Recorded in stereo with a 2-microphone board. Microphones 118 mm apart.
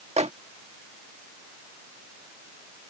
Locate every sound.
0.2 s a microwave: 65° right (ahead or behind)